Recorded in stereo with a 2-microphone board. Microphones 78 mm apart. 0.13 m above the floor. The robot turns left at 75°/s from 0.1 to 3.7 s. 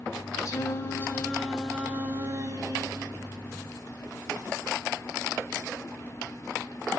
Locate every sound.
0.5 s singing: 80° left, 0.9 m; by 3.8 s 165° right, 0.9 m